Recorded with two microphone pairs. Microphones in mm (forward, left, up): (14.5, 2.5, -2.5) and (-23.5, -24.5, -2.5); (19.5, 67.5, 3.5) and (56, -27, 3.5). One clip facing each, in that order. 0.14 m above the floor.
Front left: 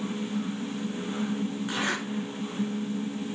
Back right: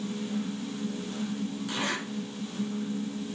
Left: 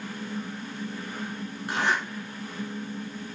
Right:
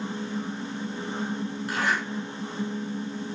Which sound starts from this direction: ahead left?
A zipper, at 1.7 s.